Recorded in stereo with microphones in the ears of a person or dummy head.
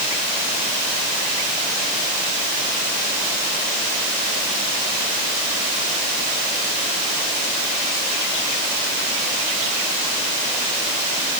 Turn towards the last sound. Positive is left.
No sound to turn to.